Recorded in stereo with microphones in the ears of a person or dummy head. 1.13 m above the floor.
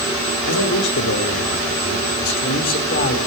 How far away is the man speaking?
About 4 m.